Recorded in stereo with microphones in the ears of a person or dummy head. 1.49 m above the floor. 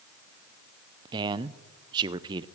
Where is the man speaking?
25° right (ahead or behind), 0.5 m.